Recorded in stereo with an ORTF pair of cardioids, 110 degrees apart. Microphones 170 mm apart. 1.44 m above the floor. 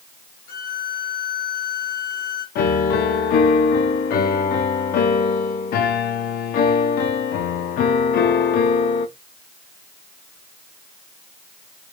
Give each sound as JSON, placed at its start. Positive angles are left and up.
{"t": 0.5, "sound": "a violin", "azimuth_deg": 65, "distance_m": 1.3}
{"t": 2.5, "sound": "a piano", "azimuth_deg": 65, "distance_m": 0.8}